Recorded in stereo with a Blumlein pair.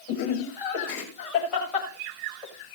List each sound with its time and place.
0.1 s laughter: 40° left, 7.5 m; by 2.5 s 20° left, 7 m